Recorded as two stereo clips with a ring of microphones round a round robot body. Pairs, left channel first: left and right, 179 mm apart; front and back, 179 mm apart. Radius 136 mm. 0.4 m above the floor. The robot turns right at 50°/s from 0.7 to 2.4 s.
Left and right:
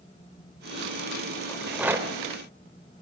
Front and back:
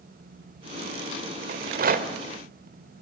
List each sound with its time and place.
1.5 s a rattle: 170° left, 1.7 m; by 3.0 s 140° right, 1.7 m